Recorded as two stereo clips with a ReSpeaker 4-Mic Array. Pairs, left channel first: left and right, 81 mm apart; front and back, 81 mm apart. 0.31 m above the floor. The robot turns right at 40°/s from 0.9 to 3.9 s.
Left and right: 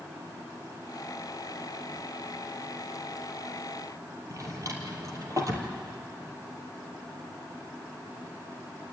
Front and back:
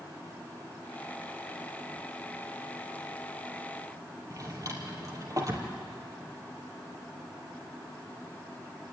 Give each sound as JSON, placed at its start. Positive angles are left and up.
{"t": 4.3, "sound": "a drawer", "azimuth_deg": -135, "distance_m": 3.0}